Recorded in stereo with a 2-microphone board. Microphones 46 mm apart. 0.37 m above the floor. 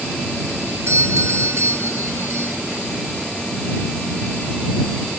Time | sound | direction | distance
0.9 | a doorbell | 65° right (ahead or behind) | ?